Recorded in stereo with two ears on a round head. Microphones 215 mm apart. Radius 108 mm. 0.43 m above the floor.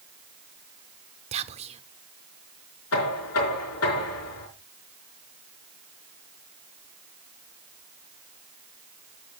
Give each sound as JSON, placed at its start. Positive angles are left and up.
{"t": 1.3, "sound": "whispering", "side_deg": -25, "distance_m": 0.9}
{"t": 2.9, "sound": "knocking", "side_deg": 70, "distance_m": 4.5}